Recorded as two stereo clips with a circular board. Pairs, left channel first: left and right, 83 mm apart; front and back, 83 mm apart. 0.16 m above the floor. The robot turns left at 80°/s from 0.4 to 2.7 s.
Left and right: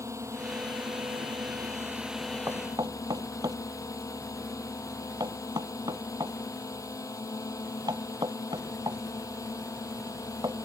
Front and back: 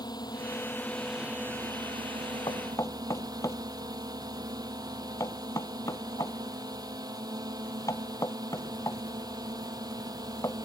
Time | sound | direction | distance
0.0 | a drone | 35° right | ?
2.5 | knocking | 30° right | ?